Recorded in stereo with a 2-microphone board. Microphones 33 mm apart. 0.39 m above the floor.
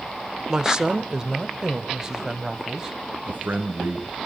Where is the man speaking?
80° right, 4.5 m.